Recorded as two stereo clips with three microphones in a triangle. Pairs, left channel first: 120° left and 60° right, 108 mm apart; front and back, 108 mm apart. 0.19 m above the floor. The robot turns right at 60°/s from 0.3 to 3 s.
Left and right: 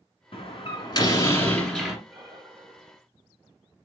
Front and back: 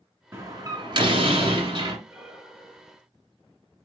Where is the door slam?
120° left, 1.6 m; by 2.0 s 140° right, 1.6 m.